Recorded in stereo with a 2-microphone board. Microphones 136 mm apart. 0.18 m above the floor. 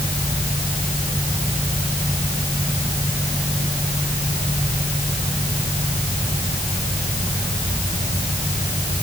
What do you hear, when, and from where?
Only background noise.